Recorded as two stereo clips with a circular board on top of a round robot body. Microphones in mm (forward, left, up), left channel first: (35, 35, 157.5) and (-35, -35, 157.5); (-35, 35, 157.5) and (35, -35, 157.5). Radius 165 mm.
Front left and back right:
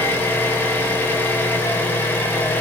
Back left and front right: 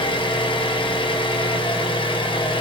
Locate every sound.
0.0 s an engine running: 115° left, 1.1 m